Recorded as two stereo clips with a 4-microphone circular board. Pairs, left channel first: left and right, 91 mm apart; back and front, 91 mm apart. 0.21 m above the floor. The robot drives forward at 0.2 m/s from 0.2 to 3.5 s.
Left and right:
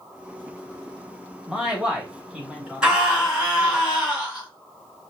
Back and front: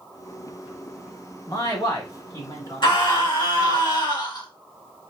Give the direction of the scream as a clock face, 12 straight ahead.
6 o'clock.